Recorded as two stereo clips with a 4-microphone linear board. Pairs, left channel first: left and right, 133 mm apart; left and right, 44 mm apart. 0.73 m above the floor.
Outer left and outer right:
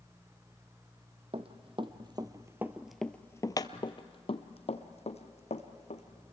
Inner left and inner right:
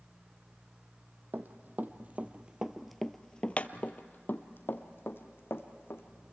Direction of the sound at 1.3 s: 50° right (ahead or behind).